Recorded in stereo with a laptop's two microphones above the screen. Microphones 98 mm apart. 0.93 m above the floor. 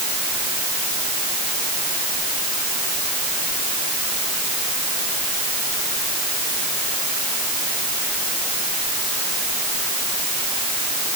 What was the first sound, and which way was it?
Only background noise.